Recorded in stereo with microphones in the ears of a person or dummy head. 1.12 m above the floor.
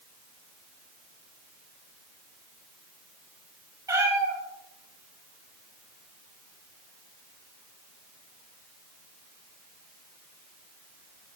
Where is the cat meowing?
10° right (ahead or behind), 4.5 m.